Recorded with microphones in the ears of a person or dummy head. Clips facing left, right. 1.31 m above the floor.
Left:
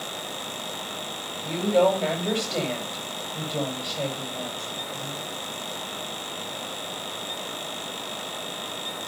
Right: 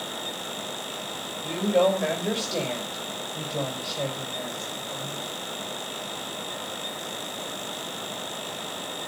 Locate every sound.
1.4 s a woman speaking: 5° right (ahead or behind), 5.5 m